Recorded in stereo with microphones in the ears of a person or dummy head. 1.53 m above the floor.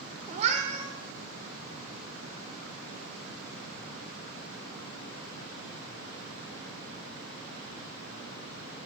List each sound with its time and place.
0.3 s a cat meowing: 35° right (ahead or behind), 1.6 m